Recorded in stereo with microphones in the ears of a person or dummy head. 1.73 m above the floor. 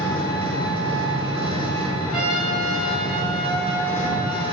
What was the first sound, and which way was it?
An engine running, 15° left (ahead or behind).